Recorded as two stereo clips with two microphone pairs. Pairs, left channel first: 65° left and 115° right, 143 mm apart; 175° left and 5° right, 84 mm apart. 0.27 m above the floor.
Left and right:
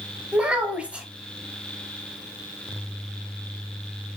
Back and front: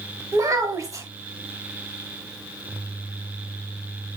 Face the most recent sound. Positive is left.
turn(degrees=-40)